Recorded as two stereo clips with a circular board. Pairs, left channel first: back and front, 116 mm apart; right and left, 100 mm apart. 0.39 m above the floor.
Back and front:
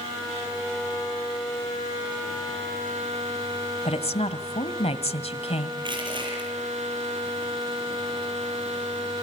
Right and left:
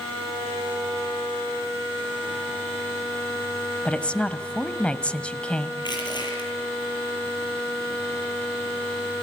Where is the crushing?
50° right, 8.5 m.